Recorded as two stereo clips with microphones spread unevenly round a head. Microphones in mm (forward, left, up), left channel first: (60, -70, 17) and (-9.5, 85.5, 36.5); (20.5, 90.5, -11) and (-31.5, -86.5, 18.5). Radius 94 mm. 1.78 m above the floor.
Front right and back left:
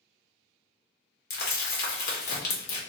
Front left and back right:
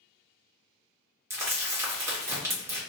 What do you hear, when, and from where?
1.3 s crumpling: 35° right, 1.0 m